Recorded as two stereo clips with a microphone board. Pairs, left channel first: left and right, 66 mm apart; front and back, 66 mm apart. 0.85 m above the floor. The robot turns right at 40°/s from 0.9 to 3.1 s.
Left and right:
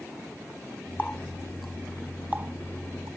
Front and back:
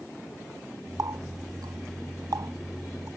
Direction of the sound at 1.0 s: 155° left.